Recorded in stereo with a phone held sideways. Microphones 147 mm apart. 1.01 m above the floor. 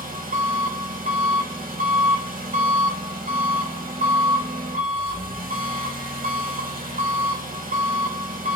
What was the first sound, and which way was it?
An engine running, 70° right (ahead or behind).